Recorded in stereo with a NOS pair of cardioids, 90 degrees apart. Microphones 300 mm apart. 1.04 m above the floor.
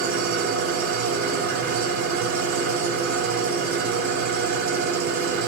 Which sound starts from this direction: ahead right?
An engine running, at 0.0 s.